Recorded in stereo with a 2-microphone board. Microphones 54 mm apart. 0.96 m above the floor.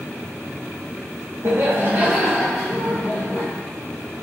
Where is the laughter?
55° right (ahead or behind), 0.8 m; by 3.5 s 20° left (ahead or behind), 1.1 m.